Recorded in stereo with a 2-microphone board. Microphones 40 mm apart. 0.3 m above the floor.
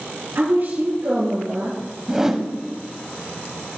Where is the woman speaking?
55° right (ahead or behind), 5.5 m.